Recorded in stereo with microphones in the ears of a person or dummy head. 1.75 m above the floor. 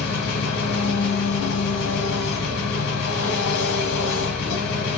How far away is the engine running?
About 1.0 m.